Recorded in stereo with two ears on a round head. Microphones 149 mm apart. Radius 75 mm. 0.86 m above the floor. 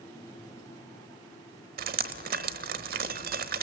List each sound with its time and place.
1.8 s dripping: 55° right (ahead or behind), 1.1 m